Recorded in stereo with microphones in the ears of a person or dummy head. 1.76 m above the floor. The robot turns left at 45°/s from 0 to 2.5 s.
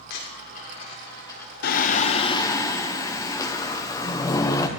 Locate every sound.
0.1 s a dropped coin: 65° left (ahead or behind), 3 m; by 1.5 s 5° left (ahead or behind), 3 m
1.6 s singing: 55° left, 1.1 m; by 4.7 s 15° left, 1.1 m